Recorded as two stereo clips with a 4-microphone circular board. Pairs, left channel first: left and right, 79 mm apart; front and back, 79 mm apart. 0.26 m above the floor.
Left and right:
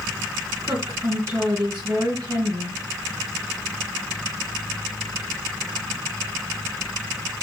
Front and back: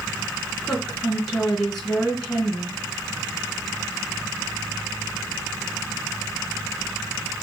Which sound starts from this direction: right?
A woman speaking, at 0.6 s.